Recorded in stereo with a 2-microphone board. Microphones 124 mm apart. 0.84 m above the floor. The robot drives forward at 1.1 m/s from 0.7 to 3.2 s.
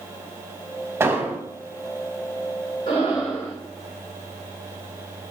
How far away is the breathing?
About 3 m.